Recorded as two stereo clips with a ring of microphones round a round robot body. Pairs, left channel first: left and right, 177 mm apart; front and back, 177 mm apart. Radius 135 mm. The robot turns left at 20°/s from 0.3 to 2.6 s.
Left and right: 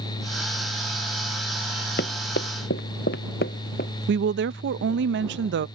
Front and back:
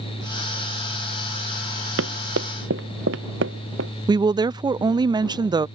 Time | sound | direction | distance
2.0 | running footsteps | 145° left | ?
4.1 | a woman speaking | 110° right | ?